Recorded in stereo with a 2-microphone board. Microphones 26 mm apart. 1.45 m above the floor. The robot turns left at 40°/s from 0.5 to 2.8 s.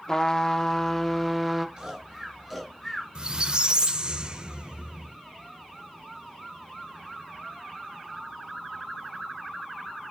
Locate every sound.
0.1 s a trumpet: 45° left, 0.6 m; by 1.7 s straight ahead, 0.6 m
1.8 s snoring: 30° right (ahead or behind), 4 m; by 3.0 s 10° left (ahead or behind), 4 m
3.1 s a squeak: 35° right (ahead or behind), 0.6 m